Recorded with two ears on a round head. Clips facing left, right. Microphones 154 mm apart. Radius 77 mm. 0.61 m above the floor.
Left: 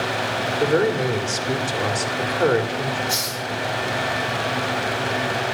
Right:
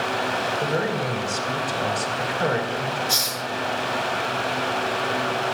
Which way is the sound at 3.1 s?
5° right (ahead or behind).